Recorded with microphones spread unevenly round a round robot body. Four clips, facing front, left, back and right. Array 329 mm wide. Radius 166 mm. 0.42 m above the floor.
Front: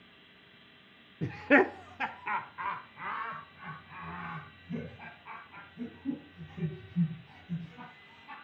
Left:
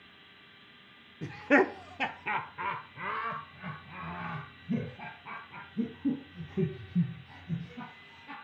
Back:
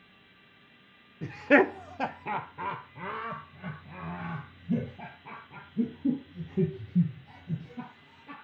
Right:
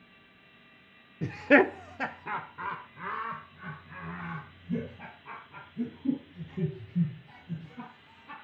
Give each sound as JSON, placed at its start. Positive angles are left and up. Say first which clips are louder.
{"t": 1.2, "sound": "laughter", "louder": "right 3 dB, back 2 dB", "azimuth_deg": -35, "distance_m": 0.8}